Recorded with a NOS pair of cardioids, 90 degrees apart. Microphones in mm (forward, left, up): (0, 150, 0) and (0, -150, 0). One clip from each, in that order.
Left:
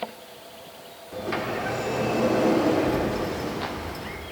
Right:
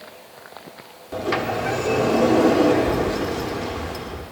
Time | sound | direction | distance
1.1 | a sliding door | 40° right | 1.2 m